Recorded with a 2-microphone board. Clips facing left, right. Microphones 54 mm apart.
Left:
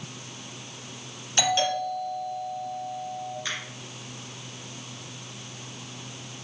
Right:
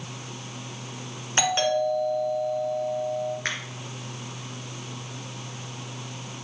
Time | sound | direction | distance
1.4 | a doorbell | 35° right (ahead or behind) | 2.5 m
3.5 | a finger snap | 55° right (ahead or behind) | 2.5 m